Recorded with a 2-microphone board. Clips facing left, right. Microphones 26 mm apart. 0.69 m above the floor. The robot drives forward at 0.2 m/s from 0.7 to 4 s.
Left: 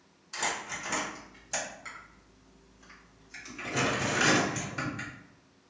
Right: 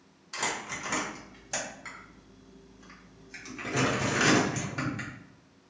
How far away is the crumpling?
About 1.2 m.